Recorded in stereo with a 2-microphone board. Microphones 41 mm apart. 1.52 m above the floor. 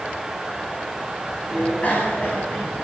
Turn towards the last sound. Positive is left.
turn(degrees=40)  # may be behind; listen again after turning